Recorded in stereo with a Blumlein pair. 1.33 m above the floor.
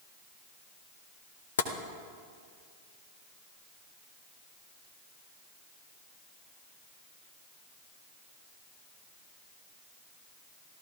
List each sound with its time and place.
1.6 s tapping: 65° left, 0.9 m